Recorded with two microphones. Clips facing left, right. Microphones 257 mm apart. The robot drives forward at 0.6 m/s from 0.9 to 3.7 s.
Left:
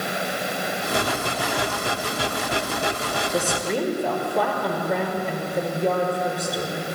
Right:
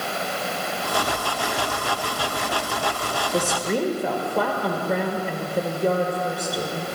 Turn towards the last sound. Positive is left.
turn(degrees=0)  # may be behind; listen again after turning